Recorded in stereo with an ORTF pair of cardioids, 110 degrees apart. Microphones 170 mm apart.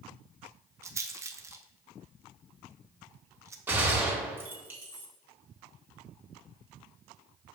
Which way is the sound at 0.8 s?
15° right.